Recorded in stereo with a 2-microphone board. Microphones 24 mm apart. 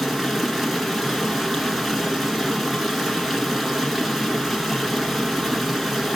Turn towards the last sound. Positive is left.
turn(degrees=-10)  # may be behind; listen again after turning